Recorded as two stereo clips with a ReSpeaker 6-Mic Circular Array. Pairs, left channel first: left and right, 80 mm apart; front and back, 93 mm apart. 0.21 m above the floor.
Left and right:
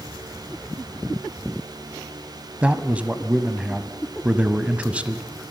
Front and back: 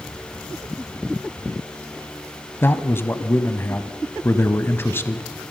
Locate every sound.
2.6 s a man speaking: 30° right, 1.1 m